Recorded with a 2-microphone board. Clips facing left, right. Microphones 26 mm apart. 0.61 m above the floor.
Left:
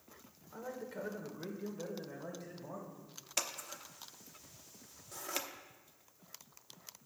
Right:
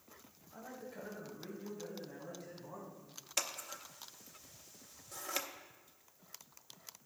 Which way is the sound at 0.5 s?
65° left (ahead or behind).